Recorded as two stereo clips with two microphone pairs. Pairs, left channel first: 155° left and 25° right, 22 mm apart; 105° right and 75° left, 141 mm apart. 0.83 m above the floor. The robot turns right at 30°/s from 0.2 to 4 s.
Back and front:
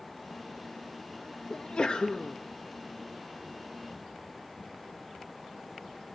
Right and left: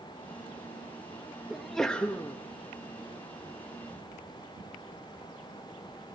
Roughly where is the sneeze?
Behind.